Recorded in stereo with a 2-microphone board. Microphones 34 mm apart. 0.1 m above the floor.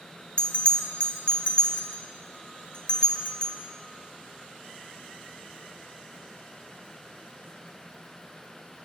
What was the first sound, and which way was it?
A bell, 30° left (ahead or behind).